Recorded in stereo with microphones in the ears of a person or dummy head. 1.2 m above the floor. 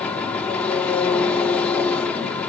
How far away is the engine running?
About 1.7 m.